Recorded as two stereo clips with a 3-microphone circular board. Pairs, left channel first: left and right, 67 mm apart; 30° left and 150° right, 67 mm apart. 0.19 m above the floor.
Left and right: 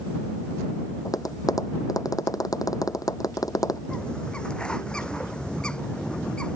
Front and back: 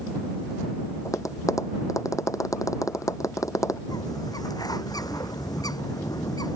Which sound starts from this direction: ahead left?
Tapping, at 1.1 s.